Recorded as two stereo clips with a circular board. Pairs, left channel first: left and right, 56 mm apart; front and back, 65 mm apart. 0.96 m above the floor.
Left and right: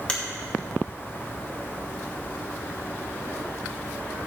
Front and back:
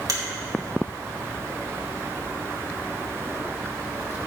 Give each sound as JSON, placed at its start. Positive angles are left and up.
{"t": 0.1, "sound": "a finger snap", "azimuth_deg": 160, "distance_m": 2.5}